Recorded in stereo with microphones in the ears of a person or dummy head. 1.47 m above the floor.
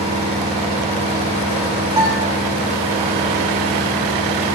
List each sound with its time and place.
0.0 s an engine running: 40° right (ahead or behind), 6 m
2.0 s a guitar: 25° right (ahead or behind), 6 m